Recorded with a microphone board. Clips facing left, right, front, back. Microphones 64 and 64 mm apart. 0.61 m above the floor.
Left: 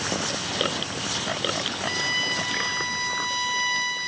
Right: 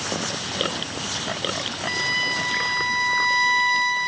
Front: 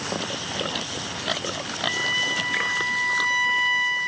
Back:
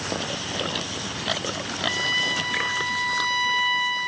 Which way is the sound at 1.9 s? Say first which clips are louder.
Right 4 dB, even; 80° right.